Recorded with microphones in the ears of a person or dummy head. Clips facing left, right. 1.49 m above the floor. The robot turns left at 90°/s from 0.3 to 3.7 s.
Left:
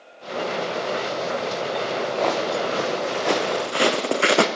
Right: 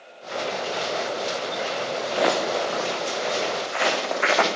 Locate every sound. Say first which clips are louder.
2.1 s footsteps: right 2 dB; 25° right (ahead or behind), 5 m; by 4.5 s 45° left (ahead or behind), 3.5 m